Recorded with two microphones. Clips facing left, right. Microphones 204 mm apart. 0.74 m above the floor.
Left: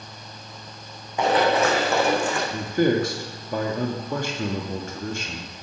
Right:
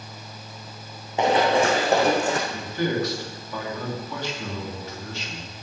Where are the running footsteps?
25° right (ahead or behind), 3 m; by 2.4 s 45° right (ahead or behind), 2.5 m.